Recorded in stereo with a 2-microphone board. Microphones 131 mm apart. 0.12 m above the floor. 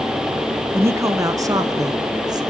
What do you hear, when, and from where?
0.7 s a man speaking: 20° right (ahead or behind), 1.1 m; by 2.4 s 30° right (ahead or behind), 1.9 m